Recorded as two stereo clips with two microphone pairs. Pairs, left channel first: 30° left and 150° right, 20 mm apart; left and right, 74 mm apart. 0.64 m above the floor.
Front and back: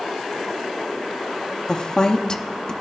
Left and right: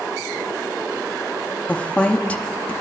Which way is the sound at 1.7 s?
30° left.